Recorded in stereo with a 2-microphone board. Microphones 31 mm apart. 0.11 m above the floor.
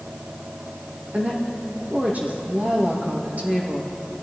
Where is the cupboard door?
No cupboard door in this recording.